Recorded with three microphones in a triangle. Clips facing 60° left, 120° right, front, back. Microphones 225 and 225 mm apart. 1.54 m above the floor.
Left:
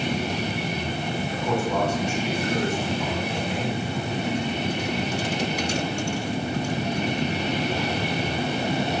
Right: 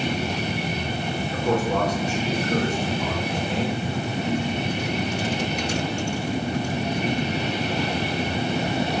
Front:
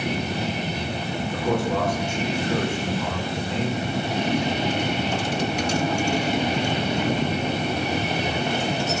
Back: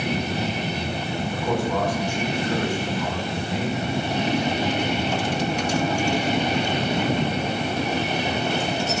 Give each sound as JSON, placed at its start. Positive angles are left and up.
{"t": 1.3, "sound": "a man speaking", "azimuth_deg": -65, "distance_m": 7.0}